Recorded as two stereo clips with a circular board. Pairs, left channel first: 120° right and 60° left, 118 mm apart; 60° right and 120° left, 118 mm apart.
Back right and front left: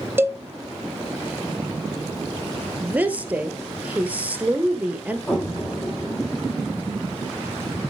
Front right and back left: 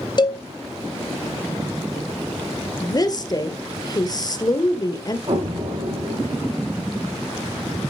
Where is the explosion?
160° left, 5 m.